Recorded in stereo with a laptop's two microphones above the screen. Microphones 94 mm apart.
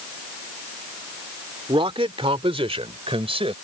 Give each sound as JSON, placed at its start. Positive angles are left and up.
{"t": 1.7, "sound": "a man speaking", "side_deg": -70}